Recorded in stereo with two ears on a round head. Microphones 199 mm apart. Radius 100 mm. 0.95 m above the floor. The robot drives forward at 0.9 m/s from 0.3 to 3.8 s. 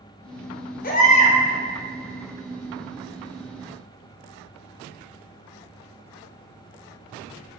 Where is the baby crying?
40° left (ahead or behind), 1.0 m; by 1.4 s 30° left (ahead or behind), 1.4 m.